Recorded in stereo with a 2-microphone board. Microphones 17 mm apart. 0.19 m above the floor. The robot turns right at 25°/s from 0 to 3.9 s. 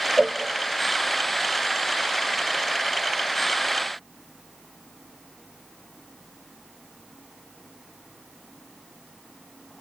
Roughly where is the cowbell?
Right.